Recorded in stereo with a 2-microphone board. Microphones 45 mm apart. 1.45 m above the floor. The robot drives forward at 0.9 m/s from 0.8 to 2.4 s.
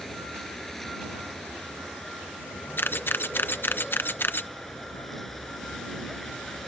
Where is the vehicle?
5° left (ahead or behind).